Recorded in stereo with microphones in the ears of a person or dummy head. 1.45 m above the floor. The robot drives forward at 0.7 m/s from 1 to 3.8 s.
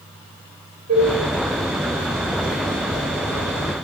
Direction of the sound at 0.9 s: 75° right (ahead or behind).